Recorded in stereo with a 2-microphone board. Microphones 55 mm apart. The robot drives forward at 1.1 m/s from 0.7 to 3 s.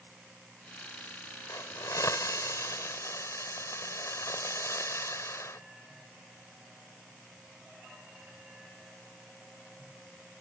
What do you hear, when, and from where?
1.5 s a hiss: 75° left (ahead or behind); by 5.6 s 65° left (ahead or behind)